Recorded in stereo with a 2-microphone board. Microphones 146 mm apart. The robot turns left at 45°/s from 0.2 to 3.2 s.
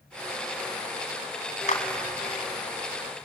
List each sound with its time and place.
1.7 s a clap: 55° left (ahead or behind), 2.5 m; by 1.8 s 60° left (ahead or behind), 2.5 m